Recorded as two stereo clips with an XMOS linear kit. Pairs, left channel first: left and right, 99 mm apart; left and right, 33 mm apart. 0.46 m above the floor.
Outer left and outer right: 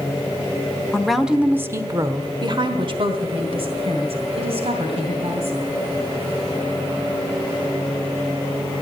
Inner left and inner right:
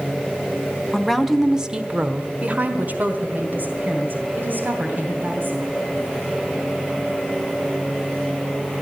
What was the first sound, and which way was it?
A woman speaking, 5° left (ahead or behind).